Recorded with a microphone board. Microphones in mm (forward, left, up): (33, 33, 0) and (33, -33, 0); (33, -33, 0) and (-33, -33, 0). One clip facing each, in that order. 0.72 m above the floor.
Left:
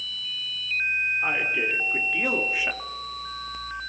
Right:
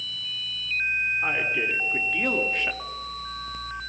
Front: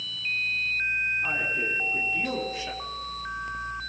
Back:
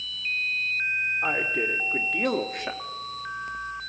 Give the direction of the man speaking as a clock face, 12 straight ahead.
6 o'clock.